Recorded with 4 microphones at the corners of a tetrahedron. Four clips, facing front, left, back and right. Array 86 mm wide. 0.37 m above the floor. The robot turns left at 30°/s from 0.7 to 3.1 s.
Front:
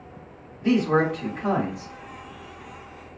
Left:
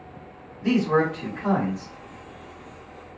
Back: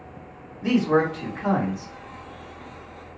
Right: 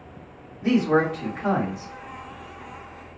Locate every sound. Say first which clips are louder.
0.6 s a man speaking: right 1 dB, even; 125° right, 1.3 m; by 1.9 s 165° right, 1.3 m